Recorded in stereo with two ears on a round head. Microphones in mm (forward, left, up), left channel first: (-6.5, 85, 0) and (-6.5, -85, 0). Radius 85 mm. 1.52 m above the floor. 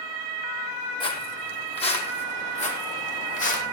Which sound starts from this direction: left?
Footsteps, at 1.0 s.